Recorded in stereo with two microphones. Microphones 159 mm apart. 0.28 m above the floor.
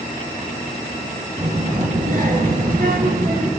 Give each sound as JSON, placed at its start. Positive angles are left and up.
{"t": 1.4, "sound": "a child speaking", "side_deg": -50, "distance_m": 2.5}